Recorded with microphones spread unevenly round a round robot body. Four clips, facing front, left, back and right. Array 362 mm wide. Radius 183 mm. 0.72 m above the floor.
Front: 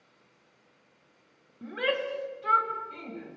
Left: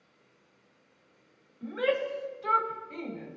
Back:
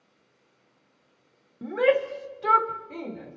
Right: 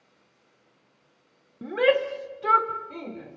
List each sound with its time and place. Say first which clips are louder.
1.6 s a shout: right 7 dB, back 8 dB; 125° right, 2.5 m; by 3.4 s 160° right, 3.5 m